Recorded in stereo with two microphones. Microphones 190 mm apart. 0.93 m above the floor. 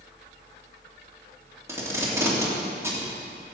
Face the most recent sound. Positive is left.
turn(degrees=-15)  # may be behind; listen again after turning